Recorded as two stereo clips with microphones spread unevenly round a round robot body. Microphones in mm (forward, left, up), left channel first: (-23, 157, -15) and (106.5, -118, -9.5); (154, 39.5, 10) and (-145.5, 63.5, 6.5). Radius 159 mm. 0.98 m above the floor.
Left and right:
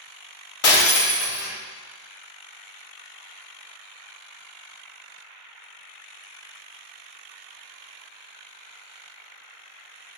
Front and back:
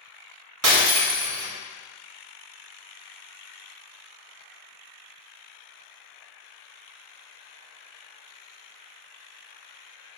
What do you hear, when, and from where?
0.6 s breaking glass: 145° left, 3 m